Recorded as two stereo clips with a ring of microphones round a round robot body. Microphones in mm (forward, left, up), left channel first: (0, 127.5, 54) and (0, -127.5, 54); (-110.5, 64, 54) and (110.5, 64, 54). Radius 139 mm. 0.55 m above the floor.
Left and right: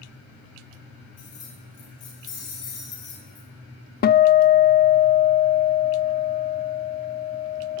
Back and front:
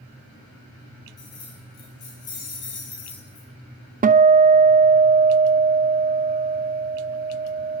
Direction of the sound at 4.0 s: 45° left.